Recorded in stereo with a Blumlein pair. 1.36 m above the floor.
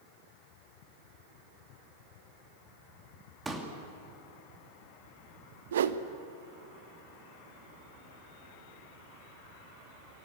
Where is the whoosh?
60° right, 0.8 m.